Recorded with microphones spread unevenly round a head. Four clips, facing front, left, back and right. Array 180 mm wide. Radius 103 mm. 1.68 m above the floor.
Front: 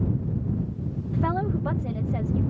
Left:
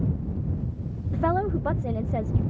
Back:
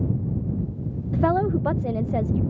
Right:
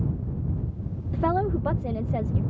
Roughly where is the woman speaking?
Behind.